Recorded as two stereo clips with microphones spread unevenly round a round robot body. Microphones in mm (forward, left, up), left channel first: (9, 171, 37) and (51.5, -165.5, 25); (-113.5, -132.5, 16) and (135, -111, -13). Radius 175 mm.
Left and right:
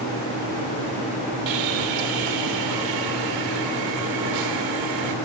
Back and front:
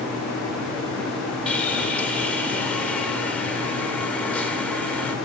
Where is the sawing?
85° right, 2.5 m.